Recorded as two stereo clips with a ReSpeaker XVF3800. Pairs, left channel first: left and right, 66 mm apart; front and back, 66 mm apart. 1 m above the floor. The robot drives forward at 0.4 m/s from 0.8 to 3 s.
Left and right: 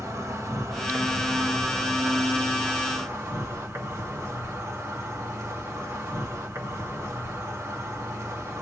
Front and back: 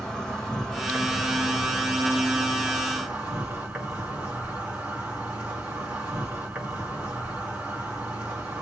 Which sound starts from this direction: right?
An insect, at 0.0 s.